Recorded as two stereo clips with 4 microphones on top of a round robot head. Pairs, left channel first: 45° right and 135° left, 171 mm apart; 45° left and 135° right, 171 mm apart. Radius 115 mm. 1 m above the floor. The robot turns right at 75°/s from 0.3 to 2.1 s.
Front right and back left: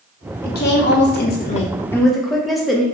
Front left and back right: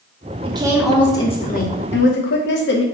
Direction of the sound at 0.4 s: 80° right.